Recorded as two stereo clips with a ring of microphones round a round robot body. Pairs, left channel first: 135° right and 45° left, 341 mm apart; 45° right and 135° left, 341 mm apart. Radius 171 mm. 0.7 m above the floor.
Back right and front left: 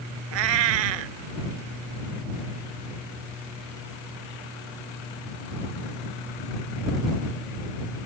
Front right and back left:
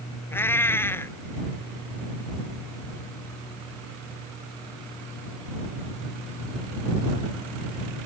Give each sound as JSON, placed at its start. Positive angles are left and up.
{"t": 0.3, "sound": "a cat meowing", "azimuth_deg": 40}